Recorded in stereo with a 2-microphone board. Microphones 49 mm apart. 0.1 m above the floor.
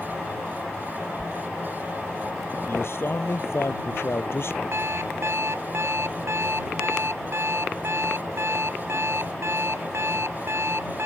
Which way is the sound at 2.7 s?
60° left (ahead or behind).